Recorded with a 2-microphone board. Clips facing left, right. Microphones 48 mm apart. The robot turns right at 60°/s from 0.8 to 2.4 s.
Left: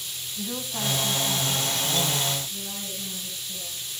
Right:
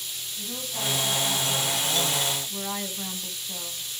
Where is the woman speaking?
160° left, 3 m; by 3.9 s 105° right, 3 m.